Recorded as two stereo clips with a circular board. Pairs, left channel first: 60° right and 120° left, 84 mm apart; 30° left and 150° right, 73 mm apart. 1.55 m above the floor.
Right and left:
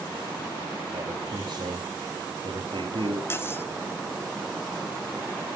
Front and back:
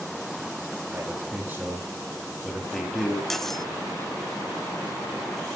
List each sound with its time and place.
0.9 s a man speaking: 160° left, 4 m; by 3.2 s 110° left, 4 m
3.3 s cutlery clinking: 50° right, 0.7 m